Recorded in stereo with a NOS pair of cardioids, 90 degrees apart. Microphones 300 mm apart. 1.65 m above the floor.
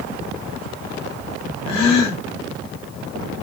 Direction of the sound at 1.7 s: 70° left.